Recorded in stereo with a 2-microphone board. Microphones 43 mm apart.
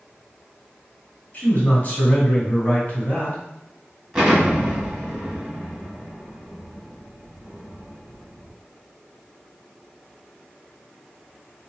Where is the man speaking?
40° left (ahead or behind), 1.9 m.